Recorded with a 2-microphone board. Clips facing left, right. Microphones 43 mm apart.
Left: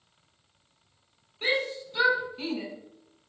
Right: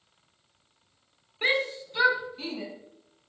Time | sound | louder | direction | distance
1.4 | a shout | right 2 dB | 30° right (ahead or behind) | 1.1 m